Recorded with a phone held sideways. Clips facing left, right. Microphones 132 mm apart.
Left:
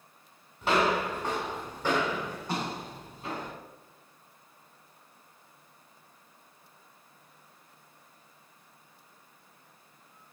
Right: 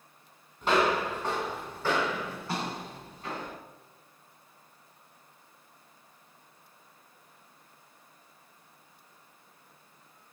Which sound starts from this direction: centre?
Footsteps, at 0.6 s.